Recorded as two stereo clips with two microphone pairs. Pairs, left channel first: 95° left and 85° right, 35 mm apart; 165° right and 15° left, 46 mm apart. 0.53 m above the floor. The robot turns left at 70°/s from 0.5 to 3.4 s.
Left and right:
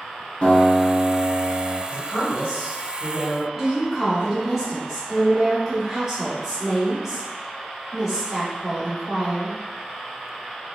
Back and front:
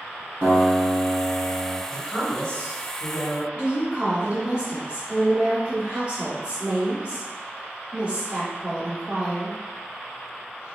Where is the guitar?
50° left, 1.6 m; by 1.8 s 40° right, 1.6 m.